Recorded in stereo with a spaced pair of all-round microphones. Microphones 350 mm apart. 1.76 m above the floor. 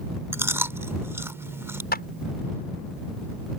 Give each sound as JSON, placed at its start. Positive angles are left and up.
{"t": 0.3, "sound": "chewing", "side_deg": -5}
{"t": 1.9, "sound": "a clap", "side_deg": 25}